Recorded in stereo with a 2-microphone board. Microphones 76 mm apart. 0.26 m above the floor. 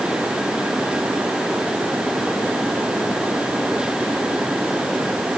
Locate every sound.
Only background noise.